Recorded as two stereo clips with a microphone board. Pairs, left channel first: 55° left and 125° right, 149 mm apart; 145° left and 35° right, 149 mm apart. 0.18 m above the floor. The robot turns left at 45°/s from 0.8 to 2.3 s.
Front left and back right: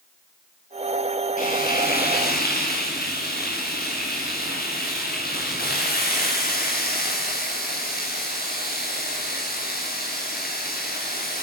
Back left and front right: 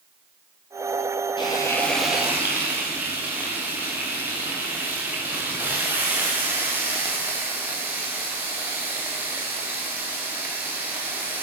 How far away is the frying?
About 8.5 m.